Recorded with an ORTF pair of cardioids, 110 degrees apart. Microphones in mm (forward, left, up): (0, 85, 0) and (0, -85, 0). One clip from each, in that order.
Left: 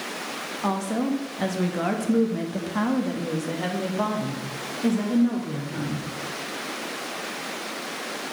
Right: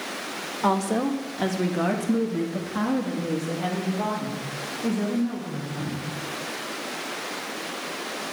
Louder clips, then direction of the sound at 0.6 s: Right 4 dB; 25° right.